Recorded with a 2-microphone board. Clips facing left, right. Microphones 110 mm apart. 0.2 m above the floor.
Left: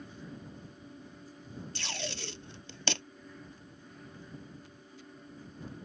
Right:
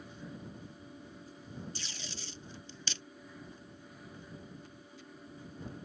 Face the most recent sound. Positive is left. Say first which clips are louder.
# left 8 dB
turn(degrees=75)  # may be behind; listen again after turning